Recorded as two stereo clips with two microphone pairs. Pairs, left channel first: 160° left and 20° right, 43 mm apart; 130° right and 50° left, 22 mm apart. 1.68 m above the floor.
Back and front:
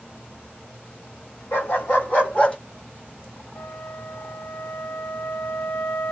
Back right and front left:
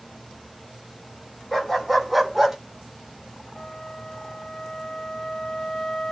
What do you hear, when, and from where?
1.5 s a dog barking: 150° left, 2.0 m; by 2.6 s 120° left, 1.3 m
3.5 s a flute: 175° left, 0.9 m